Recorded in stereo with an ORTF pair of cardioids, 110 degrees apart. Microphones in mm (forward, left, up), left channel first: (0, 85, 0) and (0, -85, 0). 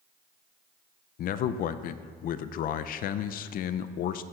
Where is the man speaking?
60° left, 0.5 m.